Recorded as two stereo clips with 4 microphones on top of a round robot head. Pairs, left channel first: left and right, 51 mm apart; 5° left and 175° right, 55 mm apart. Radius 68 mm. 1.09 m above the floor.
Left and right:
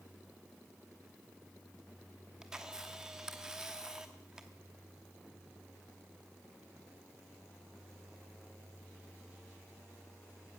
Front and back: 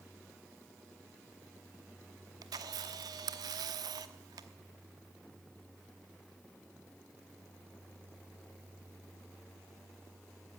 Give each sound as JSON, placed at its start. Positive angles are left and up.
{"t": 2.4, "sound": "a camera shutter", "azimuth_deg": -170, "distance_m": 1.1}